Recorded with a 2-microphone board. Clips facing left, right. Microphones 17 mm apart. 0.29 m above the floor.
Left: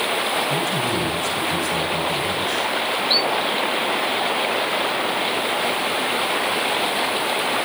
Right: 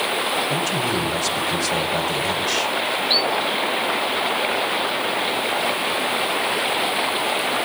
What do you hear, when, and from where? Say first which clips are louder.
0.5 s a man speaking: even; 50° right (ahead or behind), 1.7 m